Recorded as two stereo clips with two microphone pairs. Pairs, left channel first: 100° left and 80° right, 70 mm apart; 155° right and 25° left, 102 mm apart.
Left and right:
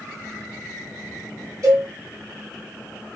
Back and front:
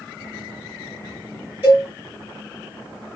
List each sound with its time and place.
1.6 s a cowbell: 45° right, 2.0 m